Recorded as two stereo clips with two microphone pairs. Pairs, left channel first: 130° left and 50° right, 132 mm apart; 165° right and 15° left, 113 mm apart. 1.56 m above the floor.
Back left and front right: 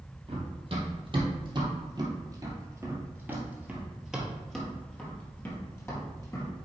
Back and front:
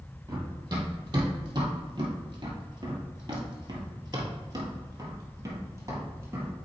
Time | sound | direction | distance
0.3 | running footsteps | 25° right | 2.5 m